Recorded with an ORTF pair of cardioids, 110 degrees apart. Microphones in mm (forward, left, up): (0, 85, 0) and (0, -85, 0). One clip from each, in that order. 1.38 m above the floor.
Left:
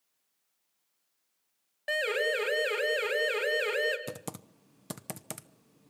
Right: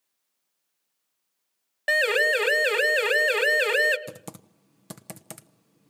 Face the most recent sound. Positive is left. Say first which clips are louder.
# left 1 dB
turn(degrees=10)